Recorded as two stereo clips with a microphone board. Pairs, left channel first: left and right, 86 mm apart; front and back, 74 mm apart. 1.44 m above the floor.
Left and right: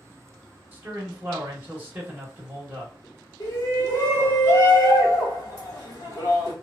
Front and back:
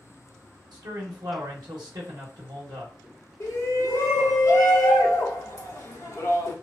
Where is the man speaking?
155° right, 0.8 m.